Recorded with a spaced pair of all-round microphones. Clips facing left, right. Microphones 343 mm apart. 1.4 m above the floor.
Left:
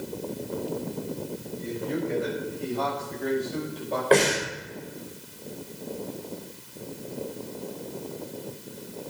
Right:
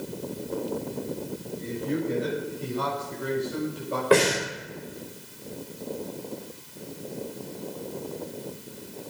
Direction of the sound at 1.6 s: 30° right (ahead or behind).